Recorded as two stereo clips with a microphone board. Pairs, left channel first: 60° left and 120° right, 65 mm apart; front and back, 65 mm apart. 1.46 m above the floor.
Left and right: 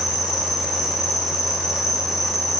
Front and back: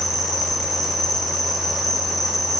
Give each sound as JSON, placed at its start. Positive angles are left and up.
{"t": 0.0, "sound": "an insect", "azimuth_deg": 90, "distance_m": 3.0}